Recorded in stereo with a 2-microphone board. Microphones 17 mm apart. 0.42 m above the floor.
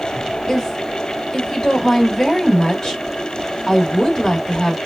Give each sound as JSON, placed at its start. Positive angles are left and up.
{"t": 0.5, "sound": "a woman speaking", "side_deg": 40, "distance_m": 1.1}